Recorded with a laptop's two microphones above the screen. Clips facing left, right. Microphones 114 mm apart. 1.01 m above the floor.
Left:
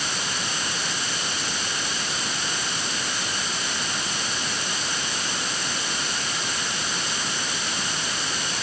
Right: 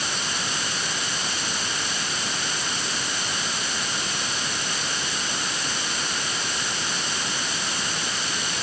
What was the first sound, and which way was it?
Only background noise.